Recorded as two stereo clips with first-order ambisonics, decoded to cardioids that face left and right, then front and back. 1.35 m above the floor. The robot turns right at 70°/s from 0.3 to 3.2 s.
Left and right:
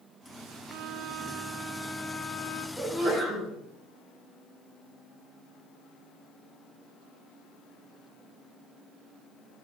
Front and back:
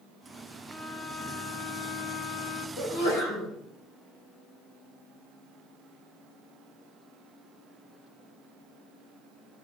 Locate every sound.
0.7 s a violin: 85° right, 1.0 m; by 2.7 s 50° left, 1.0 m
2.8 s a sneeze: 15° right, 5.5 m; by 3.5 s 15° left, 5.5 m